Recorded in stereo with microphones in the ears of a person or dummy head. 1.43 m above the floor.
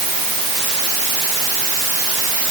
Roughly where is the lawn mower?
I don't hear a lawn mower.